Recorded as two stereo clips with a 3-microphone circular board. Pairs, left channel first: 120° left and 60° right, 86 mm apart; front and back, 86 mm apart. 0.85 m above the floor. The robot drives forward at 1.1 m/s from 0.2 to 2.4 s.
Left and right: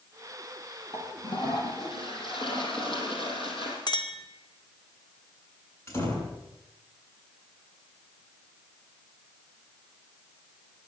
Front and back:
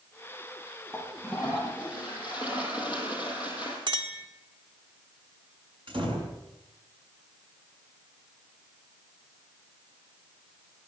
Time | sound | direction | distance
0.9 | a toilet flushing | 95° left | 7 m
3.9 | a clink | 155° left | 1.9 m
5.9 | a door slam | straight behind | 7.5 m